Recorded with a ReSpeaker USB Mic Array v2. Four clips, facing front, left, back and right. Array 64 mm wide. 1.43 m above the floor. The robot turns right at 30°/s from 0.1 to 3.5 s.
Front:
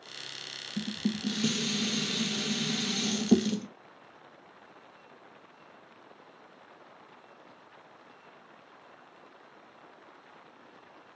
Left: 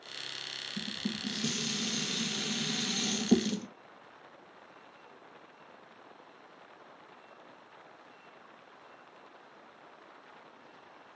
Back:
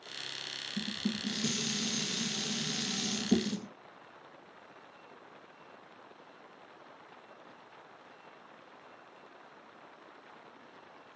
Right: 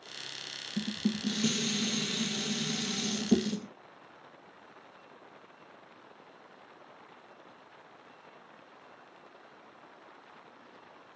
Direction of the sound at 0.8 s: 50° right.